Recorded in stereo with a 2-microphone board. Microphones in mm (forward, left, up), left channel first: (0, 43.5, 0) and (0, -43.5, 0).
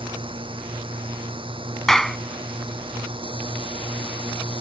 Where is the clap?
5° left (ahead or behind).